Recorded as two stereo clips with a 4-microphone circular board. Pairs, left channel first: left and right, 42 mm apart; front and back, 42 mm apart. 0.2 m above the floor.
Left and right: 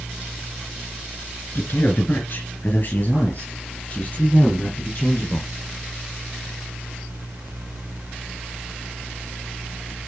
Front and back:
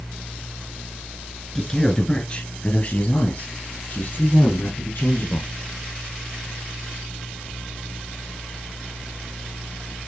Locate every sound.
1.6 s a man speaking: 75° left, 2.5 m; by 5.5 s 35° left, 6.5 m